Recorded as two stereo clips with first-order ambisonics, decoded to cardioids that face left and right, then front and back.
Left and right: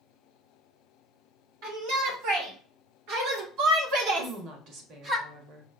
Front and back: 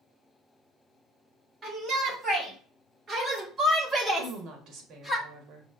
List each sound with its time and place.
1.6 s a shout: 105° right, 3 m; by 5.2 s 75° right, 0.8 m
4.2 s a woman speaking: 130° right, 1.4 m